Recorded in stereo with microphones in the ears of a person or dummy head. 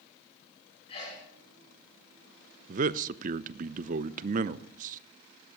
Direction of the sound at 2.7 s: 40° right (ahead or behind).